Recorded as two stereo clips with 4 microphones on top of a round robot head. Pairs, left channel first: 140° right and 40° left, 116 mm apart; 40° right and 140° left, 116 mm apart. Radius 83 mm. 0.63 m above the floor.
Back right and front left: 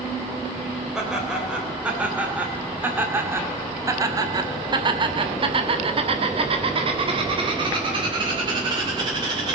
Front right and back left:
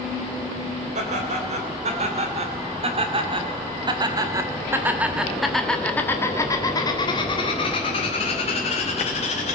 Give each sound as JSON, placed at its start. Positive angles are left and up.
{"t": 0.9, "sound": "laughter", "azimuth_deg": 125, "distance_m": 3.0}